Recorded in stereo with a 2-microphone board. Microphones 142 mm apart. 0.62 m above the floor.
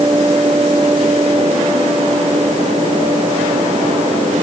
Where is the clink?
I don't hear a clink.